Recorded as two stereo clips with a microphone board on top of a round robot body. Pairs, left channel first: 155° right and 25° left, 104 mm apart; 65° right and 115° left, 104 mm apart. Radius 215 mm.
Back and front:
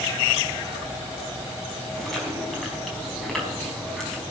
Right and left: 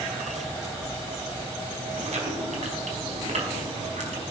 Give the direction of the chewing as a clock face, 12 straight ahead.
8 o'clock.